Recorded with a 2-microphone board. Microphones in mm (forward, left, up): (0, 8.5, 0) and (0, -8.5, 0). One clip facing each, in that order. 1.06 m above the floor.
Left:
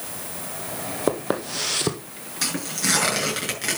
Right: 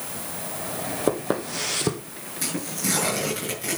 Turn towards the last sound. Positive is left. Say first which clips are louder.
# left 3 dB
turn(degrees=50)  # may be behind; listen again after turning